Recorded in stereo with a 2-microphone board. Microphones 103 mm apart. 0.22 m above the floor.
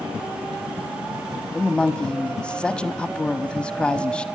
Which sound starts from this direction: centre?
A woman speaking, at 1.5 s.